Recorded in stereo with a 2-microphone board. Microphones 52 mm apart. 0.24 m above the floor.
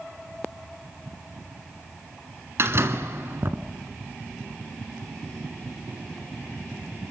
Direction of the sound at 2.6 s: 55° right (ahead or behind).